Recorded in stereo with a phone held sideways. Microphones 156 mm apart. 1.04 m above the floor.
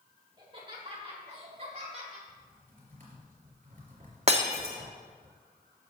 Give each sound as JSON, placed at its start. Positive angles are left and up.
{"t": 0.4, "sound": "laughter", "side_deg": -30, "distance_m": 2.5}
{"t": 2.3, "sound": "typing on a keyboard", "side_deg": -55, "distance_m": 3.5}
{"t": 4.3, "sound": "breaking glass", "side_deg": -40, "distance_m": 1.2}